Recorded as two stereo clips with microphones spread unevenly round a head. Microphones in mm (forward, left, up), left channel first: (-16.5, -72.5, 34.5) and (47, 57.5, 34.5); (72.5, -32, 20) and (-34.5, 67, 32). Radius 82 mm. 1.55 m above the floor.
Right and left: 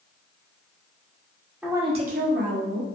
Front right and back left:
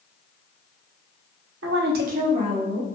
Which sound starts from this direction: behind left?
A woman speaking, at 1.6 s.